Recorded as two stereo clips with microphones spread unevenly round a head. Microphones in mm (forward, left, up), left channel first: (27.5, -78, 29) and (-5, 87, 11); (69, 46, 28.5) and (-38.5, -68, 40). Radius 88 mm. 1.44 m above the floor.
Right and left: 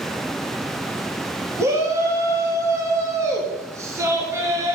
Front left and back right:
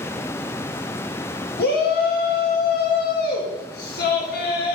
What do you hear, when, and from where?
1.6 s a shout: 30° left, 3 m